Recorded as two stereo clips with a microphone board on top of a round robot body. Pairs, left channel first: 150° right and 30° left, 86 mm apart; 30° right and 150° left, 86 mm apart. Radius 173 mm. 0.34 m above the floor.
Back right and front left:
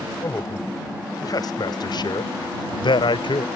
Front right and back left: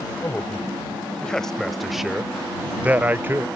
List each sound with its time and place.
0.2 s a man speaking: 100° right; by 3.5 s 150° right